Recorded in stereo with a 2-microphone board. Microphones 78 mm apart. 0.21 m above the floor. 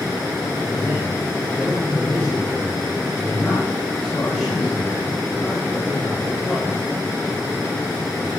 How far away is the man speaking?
About 7.5 m.